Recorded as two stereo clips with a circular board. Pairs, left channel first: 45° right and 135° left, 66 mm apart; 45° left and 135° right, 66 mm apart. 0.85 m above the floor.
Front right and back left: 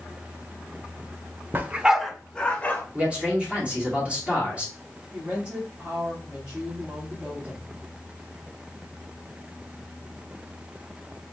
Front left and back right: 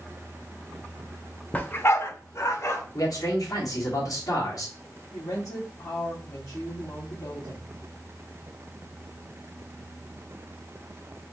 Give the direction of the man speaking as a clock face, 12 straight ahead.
10 o'clock.